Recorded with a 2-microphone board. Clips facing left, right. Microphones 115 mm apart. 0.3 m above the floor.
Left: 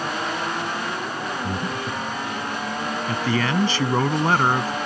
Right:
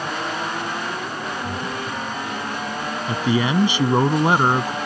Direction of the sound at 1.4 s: 45° left (ahead or behind).